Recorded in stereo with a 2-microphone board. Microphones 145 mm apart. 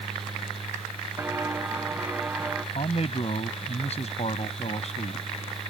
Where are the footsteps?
15° right (ahead or behind); by 2.6 s 10° right (ahead or behind).